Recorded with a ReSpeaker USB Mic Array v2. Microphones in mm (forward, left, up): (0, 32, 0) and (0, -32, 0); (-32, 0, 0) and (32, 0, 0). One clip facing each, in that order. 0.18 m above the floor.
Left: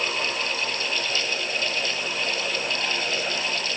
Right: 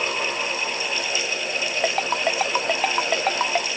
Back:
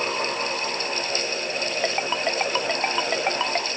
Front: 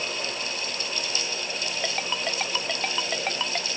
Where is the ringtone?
110° right.